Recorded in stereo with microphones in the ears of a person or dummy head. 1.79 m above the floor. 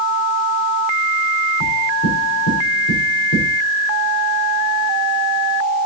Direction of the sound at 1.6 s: 80° left.